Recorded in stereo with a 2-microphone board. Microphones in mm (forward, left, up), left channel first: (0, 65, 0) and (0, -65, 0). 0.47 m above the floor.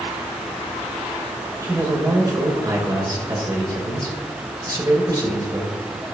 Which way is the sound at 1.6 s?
30° right (ahead or behind).